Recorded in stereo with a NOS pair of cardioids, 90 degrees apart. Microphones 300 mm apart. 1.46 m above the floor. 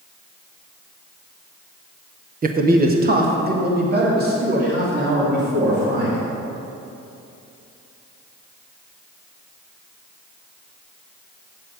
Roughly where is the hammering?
I don't hear hammering.